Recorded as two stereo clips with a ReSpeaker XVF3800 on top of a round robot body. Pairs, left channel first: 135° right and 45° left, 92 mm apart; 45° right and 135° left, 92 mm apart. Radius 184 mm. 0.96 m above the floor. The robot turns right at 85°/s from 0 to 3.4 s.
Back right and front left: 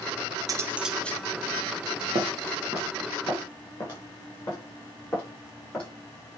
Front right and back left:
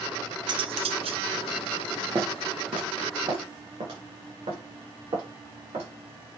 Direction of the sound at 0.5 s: 95° left.